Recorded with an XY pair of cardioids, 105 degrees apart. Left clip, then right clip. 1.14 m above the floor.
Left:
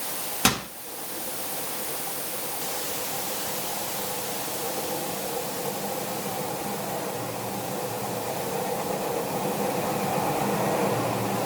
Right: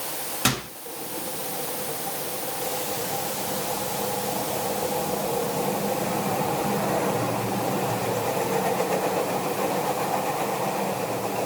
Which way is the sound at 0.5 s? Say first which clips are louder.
Left 1 dB; 25° left.